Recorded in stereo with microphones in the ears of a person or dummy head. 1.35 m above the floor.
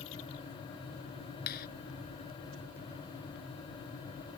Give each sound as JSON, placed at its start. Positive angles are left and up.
{"t": 1.5, "sound": "a clap", "side_deg": 50}